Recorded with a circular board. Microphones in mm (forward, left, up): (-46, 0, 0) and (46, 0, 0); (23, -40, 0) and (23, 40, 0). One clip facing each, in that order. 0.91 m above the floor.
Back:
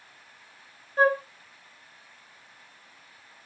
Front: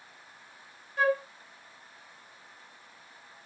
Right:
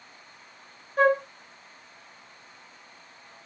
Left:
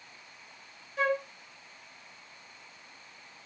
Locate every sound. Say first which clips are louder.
1.0 s a flute: back 4 dB, right 8 dB; 130° right, 1.3 m